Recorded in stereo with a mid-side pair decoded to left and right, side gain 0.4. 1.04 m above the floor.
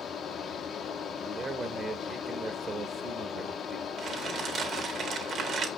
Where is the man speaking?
45° right, 1.2 m.